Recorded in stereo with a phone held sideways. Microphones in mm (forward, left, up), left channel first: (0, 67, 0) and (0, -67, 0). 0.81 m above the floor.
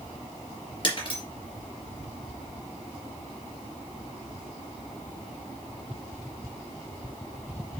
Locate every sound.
0.8 s breaking glass: 40° left (ahead or behind), 3 m